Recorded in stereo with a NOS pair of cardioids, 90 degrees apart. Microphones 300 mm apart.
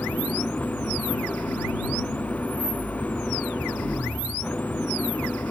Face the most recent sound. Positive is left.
turn(degrees=5)